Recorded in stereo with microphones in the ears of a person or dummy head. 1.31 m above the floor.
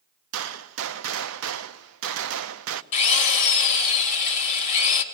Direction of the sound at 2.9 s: 35° left (ahead or behind).